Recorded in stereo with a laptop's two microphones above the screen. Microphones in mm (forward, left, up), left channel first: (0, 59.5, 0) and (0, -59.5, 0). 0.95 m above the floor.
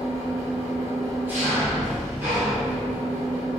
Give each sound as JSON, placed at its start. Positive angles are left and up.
{"t": 0.0, "sound": "an engine running", "side_deg": -20, "distance_m": 1.6}